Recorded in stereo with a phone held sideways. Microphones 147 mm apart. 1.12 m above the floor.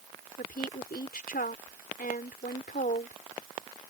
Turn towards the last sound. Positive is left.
turn(degrees=85)